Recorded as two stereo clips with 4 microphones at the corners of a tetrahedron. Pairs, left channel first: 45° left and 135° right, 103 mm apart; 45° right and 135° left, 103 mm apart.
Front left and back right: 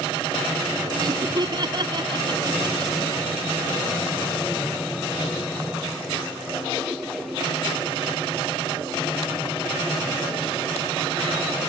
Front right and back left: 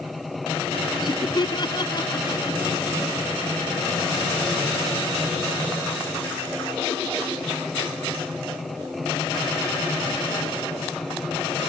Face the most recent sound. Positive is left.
turn(degrees=-90)